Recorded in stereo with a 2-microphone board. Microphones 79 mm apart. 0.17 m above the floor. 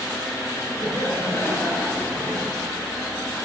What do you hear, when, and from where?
0.8 s laughter: 45° left (ahead or behind), 2.5 m; by 2.5 s 30° left (ahead or behind), 3 m